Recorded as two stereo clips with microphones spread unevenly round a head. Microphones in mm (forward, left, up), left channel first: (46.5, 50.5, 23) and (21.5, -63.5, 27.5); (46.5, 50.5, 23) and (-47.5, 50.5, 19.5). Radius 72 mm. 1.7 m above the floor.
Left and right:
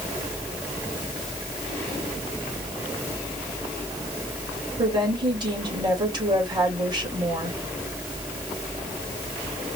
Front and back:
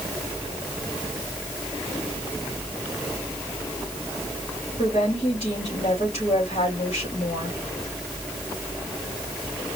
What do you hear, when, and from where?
4.8 s a woman speaking: 50° right, 3 m